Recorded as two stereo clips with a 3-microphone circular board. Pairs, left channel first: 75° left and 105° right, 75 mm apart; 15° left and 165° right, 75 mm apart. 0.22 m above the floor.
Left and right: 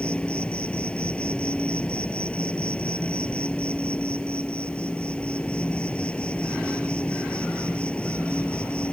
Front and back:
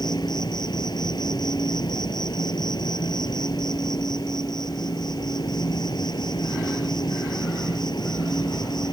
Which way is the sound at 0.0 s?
Straight ahead.